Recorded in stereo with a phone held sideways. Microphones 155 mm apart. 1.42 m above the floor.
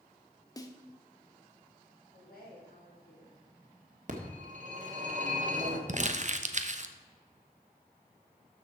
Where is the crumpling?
50° right (ahead or behind), 0.8 m.